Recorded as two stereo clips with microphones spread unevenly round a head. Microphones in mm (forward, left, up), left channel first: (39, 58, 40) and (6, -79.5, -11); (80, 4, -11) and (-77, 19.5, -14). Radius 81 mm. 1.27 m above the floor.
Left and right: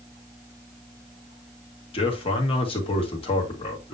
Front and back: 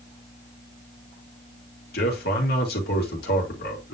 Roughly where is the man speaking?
Ahead left.